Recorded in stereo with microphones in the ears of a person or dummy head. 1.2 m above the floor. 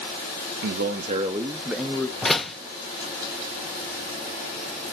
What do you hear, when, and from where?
0.6 s a man speaking: 60° right (ahead or behind), 0.5 m; by 2.1 s 15° left (ahead or behind), 0.9 m
2.2 s a door slam: 10° left (ahead or behind), 0.5 m